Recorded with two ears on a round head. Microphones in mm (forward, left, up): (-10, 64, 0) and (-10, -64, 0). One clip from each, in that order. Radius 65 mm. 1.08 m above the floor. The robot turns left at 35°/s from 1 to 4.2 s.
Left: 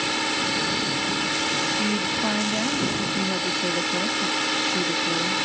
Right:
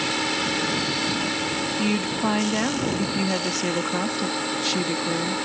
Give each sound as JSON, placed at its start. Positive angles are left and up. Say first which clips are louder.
{"t": 0.0, "sound": "a drone", "louder": "even", "azimuth_deg": 165}
{"t": 1.8, "sound": "a woman speaking", "louder": "left 1 dB", "azimuth_deg": -50}